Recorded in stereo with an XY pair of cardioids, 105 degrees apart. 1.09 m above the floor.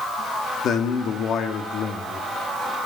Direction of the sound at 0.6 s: 65° left.